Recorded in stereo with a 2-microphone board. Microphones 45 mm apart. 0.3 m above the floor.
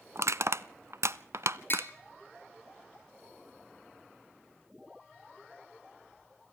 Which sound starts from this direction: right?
Crushing, at 0.1 s.